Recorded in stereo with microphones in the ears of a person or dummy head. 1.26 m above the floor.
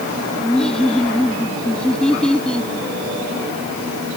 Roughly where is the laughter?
Centre.